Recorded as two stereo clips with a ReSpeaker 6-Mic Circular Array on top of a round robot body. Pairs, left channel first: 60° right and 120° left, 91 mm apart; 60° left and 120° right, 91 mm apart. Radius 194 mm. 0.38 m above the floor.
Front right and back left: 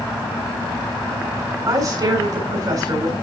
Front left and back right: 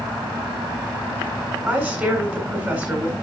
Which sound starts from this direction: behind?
A woman speaking, at 1.7 s.